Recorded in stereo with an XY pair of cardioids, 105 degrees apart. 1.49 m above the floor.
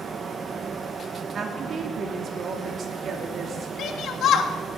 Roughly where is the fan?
Ahead right.